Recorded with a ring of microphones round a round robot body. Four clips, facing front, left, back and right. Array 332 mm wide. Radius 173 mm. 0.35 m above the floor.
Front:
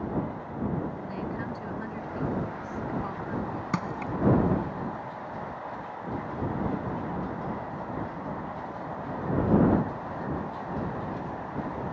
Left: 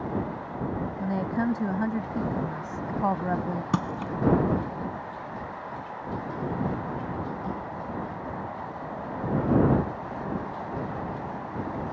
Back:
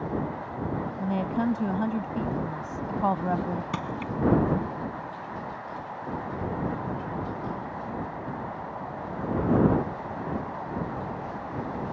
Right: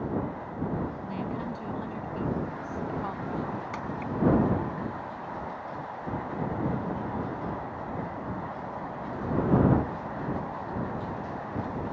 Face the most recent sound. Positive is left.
turn(degrees=80)